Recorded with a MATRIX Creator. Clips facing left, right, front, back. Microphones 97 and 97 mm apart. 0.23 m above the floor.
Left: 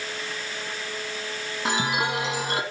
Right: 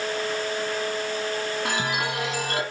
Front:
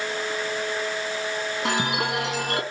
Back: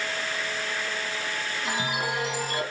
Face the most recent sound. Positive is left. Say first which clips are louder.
# left 1 dB, front 4 dB
turn(degrees=20)